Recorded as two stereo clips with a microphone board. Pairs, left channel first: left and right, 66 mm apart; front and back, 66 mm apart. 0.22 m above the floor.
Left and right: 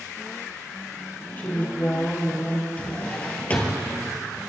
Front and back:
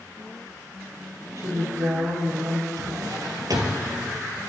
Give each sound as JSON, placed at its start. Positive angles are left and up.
{"t": 1.4, "sound": "a woman speaking", "azimuth_deg": 150, "distance_m": 4.5}
{"t": 2.8, "sound": "a drawer", "azimuth_deg": 155, "distance_m": 2.5}